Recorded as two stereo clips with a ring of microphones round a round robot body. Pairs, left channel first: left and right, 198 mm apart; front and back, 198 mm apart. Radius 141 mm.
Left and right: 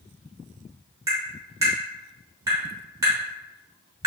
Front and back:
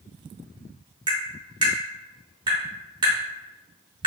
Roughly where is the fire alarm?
I don't hear a fire alarm.